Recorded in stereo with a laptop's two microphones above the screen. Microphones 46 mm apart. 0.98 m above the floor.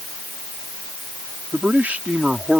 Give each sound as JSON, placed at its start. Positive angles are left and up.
{"t": 1.5, "sound": "a man speaking", "side_deg": -45}